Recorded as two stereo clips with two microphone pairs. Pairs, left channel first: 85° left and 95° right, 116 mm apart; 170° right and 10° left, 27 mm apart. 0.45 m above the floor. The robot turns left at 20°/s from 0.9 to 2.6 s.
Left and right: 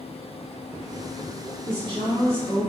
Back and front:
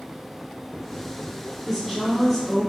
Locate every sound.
1.6 s a woman speaking: 65° right, 1.7 m; by 2.7 s 85° right, 1.7 m